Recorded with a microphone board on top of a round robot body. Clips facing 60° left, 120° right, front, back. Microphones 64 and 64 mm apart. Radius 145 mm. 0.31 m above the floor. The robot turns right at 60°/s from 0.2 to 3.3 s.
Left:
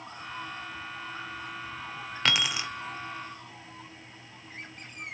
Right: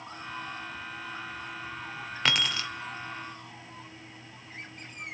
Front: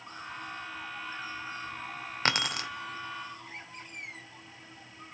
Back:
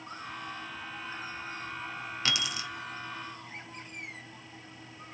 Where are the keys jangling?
30° right, 1.0 m; by 2.7 s 5° right, 1.0 m.